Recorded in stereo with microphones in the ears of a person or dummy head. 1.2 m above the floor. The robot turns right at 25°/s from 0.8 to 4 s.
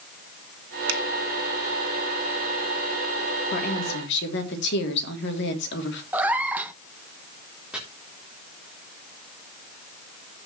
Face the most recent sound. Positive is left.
turn(degrees=-5)  # may be behind; listen again after turning